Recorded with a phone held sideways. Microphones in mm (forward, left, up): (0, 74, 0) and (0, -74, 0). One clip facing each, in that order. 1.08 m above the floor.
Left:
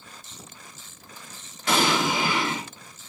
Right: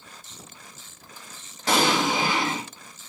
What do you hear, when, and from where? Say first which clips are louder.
1.7 s an explosion: right 1 dB; 45° right (ahead or behind), 3 m